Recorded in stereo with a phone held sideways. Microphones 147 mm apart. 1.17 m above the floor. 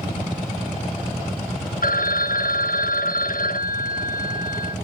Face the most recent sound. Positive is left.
turn(degrees=70)  # may be behind; listen again after turning